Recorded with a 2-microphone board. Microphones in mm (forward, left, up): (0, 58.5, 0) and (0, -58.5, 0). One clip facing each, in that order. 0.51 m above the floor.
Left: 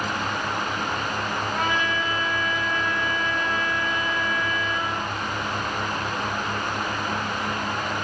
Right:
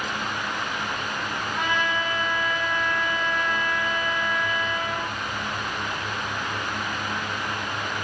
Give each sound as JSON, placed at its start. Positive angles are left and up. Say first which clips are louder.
{"t": 1.5, "sound": "a trumpet", "louder": "right 1 dB", "side_deg": 45, "distance_m": 2.0}